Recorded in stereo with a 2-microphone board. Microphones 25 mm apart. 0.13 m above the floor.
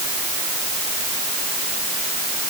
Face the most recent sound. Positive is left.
No sound to turn to.